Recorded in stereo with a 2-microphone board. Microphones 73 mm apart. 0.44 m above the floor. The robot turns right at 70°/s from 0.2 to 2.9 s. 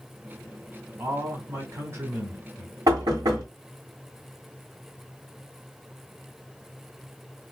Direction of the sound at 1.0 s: 130° right.